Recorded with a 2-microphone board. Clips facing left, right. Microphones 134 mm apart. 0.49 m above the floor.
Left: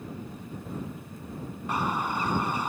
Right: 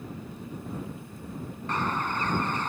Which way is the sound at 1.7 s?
10° left (ahead or behind).